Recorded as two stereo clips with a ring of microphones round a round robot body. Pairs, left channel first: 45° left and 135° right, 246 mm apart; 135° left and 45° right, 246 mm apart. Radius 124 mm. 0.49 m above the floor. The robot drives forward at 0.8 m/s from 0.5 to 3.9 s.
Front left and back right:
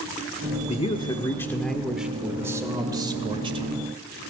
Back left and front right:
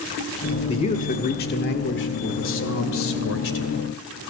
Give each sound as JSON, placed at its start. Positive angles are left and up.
{"t": 0.7, "sound": "a man speaking", "azimuth_deg": 85, "distance_m": 1.5}